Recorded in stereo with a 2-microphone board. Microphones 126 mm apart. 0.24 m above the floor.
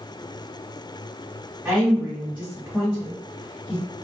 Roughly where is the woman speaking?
Centre.